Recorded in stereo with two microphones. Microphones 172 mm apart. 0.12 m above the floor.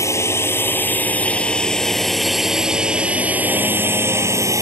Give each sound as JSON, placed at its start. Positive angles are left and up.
{"t": 0.0, "sound": "a drone", "side_deg": 15}